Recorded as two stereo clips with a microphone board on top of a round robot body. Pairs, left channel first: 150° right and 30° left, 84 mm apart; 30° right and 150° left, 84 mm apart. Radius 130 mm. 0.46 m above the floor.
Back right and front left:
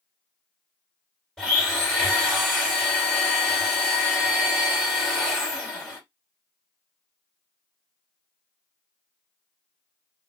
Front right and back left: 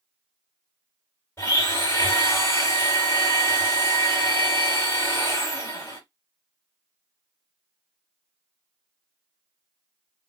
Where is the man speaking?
No man speaking in this recording.